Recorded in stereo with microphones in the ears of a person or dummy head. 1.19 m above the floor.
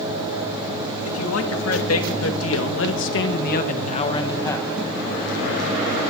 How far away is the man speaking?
About 2.5 m.